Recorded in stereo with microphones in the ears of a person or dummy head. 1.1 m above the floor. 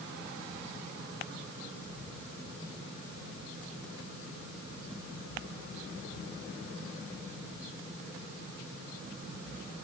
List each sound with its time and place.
Only background noise.